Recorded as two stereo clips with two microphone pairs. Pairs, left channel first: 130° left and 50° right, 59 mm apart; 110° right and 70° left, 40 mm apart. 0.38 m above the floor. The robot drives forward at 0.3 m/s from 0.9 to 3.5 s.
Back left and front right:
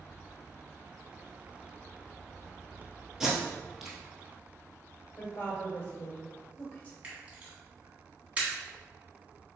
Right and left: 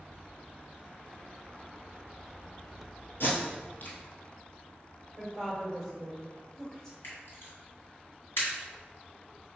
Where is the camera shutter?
120° right, 1.5 m.